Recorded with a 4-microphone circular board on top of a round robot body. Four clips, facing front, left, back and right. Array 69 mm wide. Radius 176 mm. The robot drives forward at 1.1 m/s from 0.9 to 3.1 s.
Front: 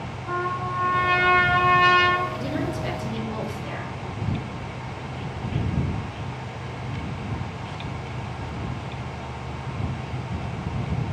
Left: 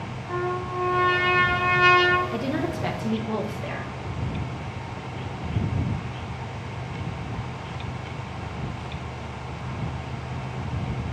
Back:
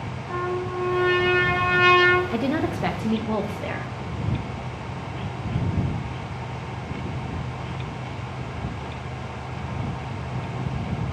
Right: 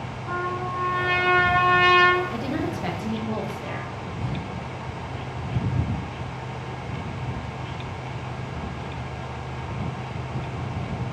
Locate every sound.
0.3 s a trumpet: 40° right, 1.7 m; by 2.2 s 105° right, 1.3 m
2.3 s a woman speaking: 170° left, 0.9 m; by 3.9 s 175° left, 1.7 m